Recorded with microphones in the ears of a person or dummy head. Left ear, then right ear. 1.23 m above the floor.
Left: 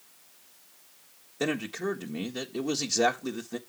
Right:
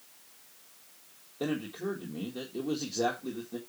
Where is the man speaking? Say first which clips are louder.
Left 4 dB; 70° left (ahead or behind), 1.6 m.